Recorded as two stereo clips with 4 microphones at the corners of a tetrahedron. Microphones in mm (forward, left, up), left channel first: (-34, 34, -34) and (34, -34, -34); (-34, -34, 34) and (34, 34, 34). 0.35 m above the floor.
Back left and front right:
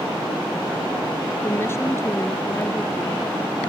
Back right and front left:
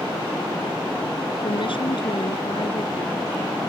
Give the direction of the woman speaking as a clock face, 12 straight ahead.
5 o'clock.